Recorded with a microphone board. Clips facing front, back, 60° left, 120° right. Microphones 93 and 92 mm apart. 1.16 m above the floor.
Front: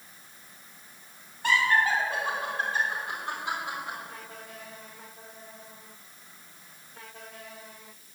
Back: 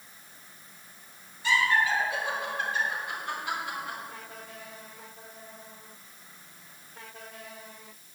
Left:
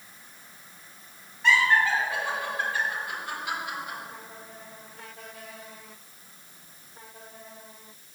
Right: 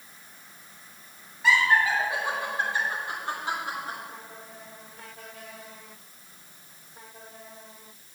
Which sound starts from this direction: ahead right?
Laughter, at 1.4 s.